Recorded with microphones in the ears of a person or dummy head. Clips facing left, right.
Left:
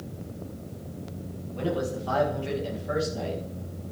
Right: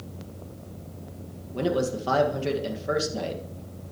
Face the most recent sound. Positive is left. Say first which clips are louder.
# right 4 dB
turn(degrees=-65)  # may be behind; listen again after turning